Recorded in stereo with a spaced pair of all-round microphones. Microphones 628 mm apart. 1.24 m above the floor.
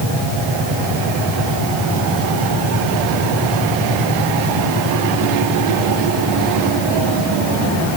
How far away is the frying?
I don't hear frying.